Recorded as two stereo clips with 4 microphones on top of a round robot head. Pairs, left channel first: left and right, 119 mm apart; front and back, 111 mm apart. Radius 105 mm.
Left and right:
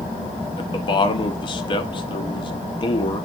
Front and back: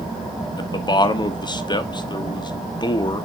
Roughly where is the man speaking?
Ahead left.